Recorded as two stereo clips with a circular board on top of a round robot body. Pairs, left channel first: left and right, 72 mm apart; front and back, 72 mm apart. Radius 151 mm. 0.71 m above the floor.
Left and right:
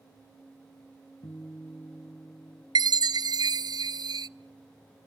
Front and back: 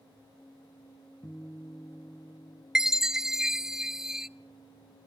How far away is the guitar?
About 2.5 m.